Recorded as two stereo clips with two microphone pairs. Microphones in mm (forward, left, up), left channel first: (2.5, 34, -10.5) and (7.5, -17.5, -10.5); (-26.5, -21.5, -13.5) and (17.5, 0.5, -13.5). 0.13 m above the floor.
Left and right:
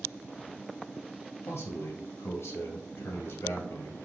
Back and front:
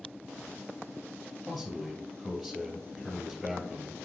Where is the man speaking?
115° left, 2.5 m.